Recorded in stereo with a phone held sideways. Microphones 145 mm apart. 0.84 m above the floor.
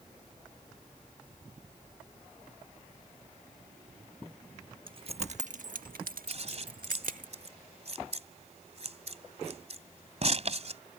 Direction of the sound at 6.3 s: 50° right (ahead or behind).